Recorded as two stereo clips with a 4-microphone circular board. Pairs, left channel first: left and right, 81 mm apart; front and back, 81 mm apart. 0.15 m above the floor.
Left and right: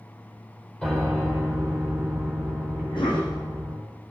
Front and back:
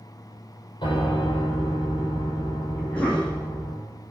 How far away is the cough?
About 7 m.